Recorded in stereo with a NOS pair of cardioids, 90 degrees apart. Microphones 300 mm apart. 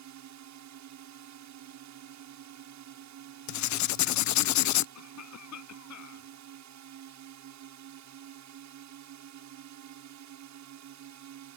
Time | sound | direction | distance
0.0 | a drone | 70° right | ?
3.5 | writing | 65° left | ?
5.0 | a cough | 65° left | ?